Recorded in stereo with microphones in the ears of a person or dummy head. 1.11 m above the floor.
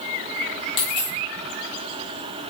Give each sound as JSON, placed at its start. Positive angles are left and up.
{"t": 0.8, "sound": "a dropped coin", "side_deg": 30, "distance_m": 0.9}